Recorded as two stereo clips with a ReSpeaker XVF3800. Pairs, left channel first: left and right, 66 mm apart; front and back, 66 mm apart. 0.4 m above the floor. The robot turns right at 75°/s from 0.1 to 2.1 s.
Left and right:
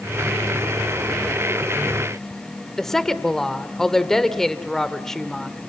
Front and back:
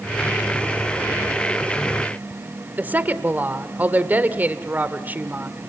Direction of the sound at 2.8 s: 165° left.